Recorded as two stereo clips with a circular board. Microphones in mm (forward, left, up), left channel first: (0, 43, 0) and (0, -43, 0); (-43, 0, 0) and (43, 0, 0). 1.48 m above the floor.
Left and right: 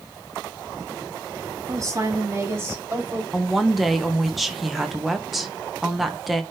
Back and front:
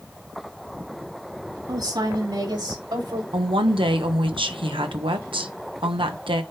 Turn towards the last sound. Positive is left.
turn(degrees=0)